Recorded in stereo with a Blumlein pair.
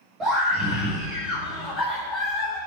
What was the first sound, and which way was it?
A scream, 20° right.